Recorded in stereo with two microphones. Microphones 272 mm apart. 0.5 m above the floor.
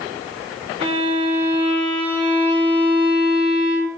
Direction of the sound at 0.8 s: 20° right (ahead or behind).